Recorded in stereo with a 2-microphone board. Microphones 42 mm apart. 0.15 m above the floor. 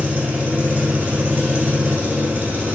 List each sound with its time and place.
0.0 s an engine running: 50° right (ahead or behind), 1.1 m